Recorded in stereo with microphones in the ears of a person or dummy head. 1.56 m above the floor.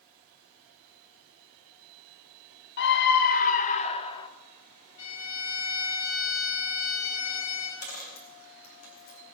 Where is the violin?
80° left, 9.5 m.